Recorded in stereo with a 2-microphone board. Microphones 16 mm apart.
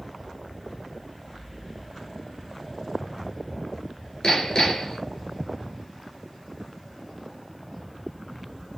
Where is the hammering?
55° left (ahead or behind), 2.5 m.